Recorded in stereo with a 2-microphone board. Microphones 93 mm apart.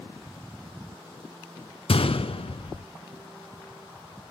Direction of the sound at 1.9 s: 70° left (ahead or behind).